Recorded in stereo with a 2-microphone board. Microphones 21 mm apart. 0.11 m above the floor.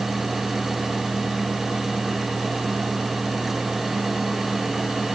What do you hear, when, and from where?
Only background noise.